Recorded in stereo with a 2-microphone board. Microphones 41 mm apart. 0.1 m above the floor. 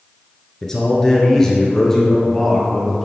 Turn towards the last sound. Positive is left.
turn(degrees=5)  # may be behind; listen again after turning